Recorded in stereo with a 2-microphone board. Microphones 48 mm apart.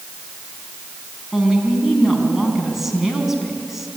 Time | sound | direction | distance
1.3 | a woman speaking | 5° right (ahead or behind) | 4.5 m